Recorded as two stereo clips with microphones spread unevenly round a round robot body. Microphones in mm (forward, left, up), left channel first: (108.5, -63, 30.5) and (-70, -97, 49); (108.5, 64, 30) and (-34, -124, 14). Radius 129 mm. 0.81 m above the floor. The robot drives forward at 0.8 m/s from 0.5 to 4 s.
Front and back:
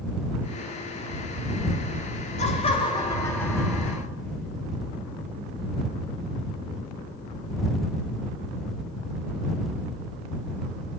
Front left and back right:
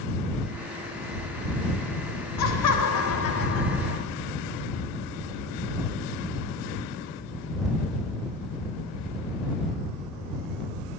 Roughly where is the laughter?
Ahead left.